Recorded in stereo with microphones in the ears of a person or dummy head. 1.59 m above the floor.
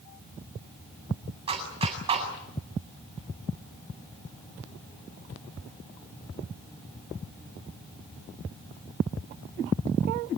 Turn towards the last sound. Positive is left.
turn(degrees=-30)  # may be behind; listen again after turning